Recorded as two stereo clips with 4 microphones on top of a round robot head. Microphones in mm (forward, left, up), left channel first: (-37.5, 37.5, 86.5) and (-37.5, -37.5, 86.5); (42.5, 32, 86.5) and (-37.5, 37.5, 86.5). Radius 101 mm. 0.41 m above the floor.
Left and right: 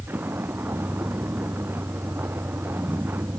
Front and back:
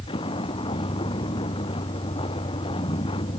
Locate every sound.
0.0 s a vehicle: 20° right